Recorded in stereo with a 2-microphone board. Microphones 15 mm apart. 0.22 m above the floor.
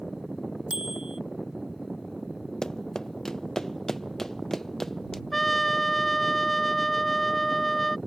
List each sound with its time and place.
0.7 s a bicycle bell: 60° right (ahead or behind)
2.6 s running footsteps: 40° left (ahead or behind); by 5.2 s 25° left (ahead or behind)
5.3 s a trumpet: 15° left (ahead or behind)